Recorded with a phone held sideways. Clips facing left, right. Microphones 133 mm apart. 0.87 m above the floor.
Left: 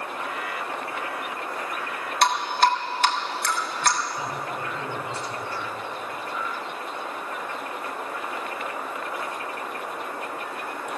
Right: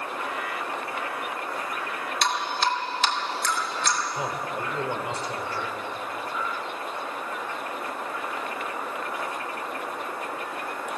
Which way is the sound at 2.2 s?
55° left (ahead or behind).